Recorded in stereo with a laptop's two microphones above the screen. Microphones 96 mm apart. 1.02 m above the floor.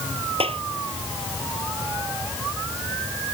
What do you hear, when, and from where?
0.4 s a clap: 80° right